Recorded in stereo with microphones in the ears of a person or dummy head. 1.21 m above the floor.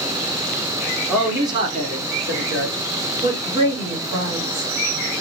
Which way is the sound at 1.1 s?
Centre (ahead or behind).